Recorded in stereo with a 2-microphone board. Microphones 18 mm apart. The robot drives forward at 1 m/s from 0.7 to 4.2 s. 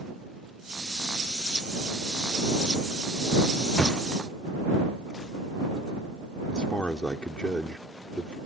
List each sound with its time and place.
3.8 s a thud: 65° left (ahead or behind); by 4.3 s 70° left (ahead or behind)
6.5 s a man speaking: 55° left (ahead or behind)